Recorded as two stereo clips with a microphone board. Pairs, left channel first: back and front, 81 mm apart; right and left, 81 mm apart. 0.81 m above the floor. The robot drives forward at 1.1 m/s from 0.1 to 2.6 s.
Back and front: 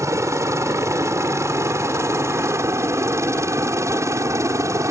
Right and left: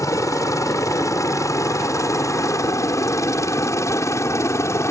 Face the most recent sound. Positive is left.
turn(degrees=-45)